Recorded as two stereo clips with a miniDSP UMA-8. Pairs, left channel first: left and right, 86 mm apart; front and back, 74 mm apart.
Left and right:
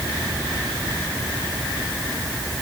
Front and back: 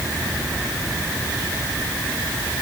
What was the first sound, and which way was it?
Only background noise.